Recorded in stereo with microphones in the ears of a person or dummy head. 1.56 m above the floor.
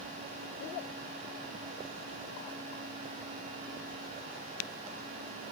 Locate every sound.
Only background noise.